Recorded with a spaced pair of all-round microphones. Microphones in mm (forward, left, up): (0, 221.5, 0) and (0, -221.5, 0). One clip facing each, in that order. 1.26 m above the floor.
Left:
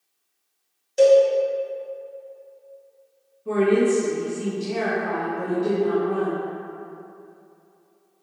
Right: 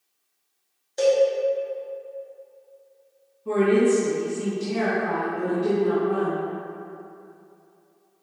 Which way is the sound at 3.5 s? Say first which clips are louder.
Even; 5° right (ahead or behind).